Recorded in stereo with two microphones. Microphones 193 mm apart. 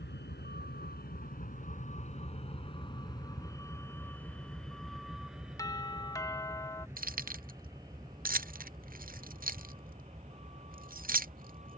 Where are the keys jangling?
50° right (ahead or behind).